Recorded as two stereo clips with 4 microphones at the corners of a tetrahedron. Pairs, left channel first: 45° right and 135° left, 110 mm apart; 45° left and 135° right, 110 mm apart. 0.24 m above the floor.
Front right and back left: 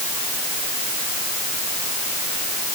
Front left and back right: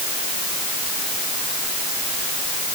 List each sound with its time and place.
Only background noise.